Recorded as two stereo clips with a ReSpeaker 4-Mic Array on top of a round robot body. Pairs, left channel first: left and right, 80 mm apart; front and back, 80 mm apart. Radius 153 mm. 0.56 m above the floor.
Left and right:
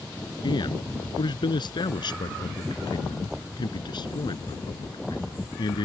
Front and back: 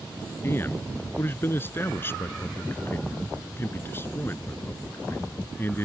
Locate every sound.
0.4 s a man speaking: 65° left